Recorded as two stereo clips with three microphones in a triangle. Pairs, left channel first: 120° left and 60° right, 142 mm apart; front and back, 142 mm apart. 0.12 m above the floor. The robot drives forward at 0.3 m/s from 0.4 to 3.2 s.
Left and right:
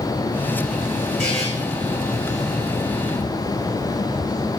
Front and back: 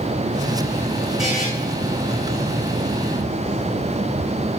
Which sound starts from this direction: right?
A buzzer, at 1.2 s.